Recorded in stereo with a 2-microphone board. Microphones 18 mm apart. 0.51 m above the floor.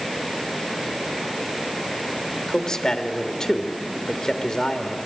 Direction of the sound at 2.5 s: 40° left (ahead or behind).